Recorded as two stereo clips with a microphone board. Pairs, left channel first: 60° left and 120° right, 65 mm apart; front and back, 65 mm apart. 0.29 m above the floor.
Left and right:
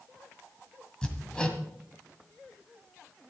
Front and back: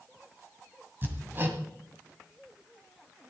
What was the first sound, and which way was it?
Hammering, 135° left.